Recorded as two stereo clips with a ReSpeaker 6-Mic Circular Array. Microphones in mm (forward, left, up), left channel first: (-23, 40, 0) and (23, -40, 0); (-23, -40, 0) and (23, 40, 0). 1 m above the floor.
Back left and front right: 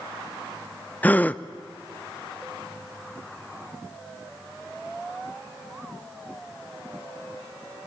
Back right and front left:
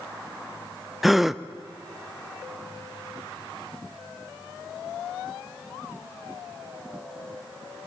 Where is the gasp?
145° left, 0.6 m.